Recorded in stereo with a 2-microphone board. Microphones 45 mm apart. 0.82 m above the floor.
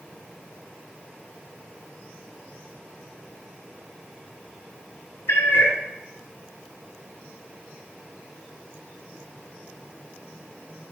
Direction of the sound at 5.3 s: 75° left (ahead or behind).